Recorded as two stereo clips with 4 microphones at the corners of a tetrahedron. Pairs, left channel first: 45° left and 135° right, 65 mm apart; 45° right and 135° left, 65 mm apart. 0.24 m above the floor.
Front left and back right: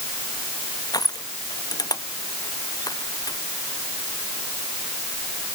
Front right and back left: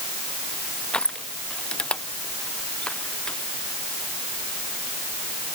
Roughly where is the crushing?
Ahead left.